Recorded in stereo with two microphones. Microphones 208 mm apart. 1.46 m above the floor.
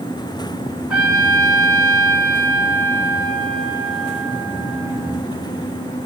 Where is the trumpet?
5° right (ahead or behind), 3.5 m.